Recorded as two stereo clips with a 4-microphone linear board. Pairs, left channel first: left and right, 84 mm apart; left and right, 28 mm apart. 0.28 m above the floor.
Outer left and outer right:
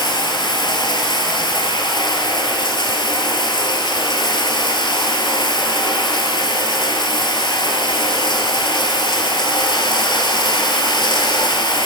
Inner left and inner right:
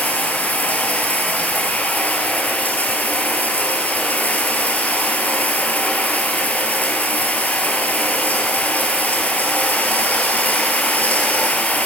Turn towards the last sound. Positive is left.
turn(degrees=70)  # may be behind; listen again after turning